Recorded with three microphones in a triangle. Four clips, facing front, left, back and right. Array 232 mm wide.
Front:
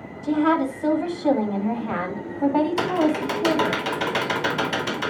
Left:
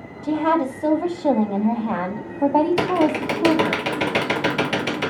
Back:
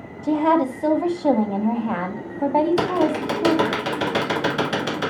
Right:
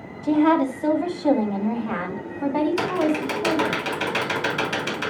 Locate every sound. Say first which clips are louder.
0.2 s a woman speaking: right 2 dB, back 2 dB; straight behind, 1.7 m; by 3.8 s 105° left, 2.5 m
2.8 s typing on a keyboard: left 3 dB, back 1 dB; 135° left, 1.4 m